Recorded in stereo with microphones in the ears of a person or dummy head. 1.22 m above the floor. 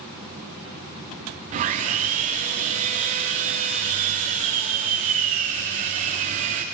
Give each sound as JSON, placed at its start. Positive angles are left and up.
{"t": 1.5, "sound": "sawing", "side_deg": -40, "distance_m": 1.0}